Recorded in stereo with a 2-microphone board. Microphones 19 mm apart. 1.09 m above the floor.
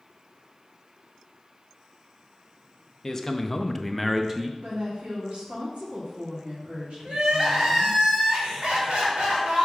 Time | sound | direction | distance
3.0 | a man speaking | 20° left (ahead or behind) | 0.9 m
4.6 | a woman speaking | 80° right | 2 m
7.0 | crying | 80° right | 2.5 m